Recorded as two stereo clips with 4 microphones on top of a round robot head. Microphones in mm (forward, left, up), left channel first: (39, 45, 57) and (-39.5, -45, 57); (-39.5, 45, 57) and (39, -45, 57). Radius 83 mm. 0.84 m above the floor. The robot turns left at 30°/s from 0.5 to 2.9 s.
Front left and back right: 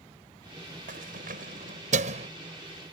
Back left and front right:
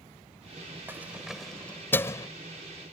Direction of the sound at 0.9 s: 125° right.